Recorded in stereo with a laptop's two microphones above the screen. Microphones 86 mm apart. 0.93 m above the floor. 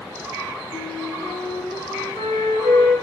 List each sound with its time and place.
0.7 s a flute: 80° left, 2.5 m